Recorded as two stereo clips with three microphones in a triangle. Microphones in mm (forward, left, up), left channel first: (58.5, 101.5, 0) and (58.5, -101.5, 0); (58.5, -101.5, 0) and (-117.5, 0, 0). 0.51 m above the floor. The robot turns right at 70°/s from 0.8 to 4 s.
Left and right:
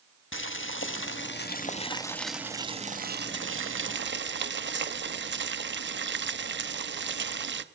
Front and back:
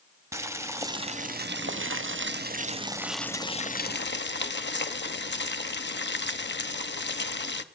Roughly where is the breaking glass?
No breaking glass in this recording.